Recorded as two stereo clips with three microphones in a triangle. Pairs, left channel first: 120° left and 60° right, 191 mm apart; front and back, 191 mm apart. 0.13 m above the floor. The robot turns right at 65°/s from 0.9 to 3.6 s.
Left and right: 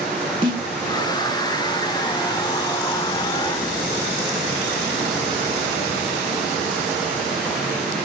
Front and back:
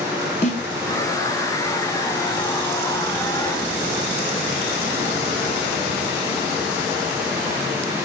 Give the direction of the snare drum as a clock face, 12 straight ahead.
12 o'clock.